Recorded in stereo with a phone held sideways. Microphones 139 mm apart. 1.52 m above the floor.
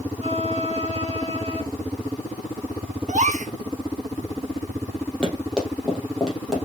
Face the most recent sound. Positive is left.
turn(degrees=0)  # may be behind; listen again after turning